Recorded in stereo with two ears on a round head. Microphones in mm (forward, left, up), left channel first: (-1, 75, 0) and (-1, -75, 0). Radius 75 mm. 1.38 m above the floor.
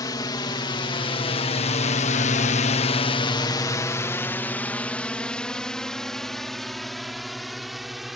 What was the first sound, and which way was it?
A drone, 25° left (ahead or behind).